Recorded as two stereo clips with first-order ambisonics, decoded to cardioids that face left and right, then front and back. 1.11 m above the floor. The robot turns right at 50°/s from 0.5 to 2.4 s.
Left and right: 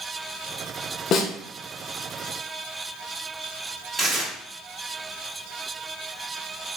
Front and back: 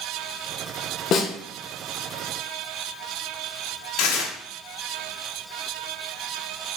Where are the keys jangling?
I don't hear keys jangling.